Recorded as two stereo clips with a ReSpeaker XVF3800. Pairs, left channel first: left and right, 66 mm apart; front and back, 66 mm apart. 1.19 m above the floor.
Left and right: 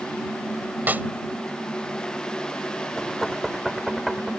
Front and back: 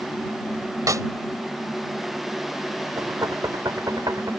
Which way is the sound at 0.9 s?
155° right.